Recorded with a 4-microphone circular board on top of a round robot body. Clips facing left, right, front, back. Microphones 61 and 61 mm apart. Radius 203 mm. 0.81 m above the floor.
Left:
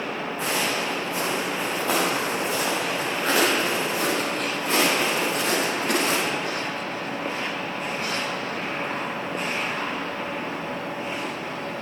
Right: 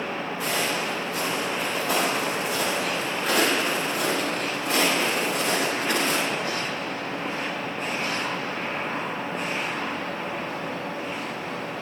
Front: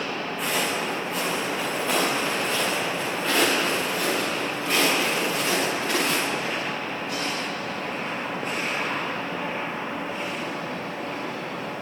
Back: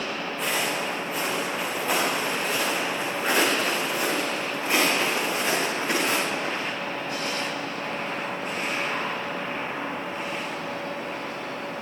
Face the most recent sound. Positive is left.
turn(degrees=115)